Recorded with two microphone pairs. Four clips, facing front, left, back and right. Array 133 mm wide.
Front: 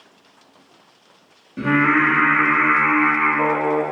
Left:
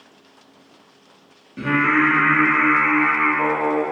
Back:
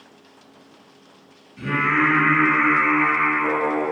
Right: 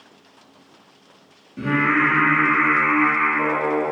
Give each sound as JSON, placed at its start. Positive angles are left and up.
{"t": 1.6, "sound": "singing", "azimuth_deg": 20, "distance_m": 4.5}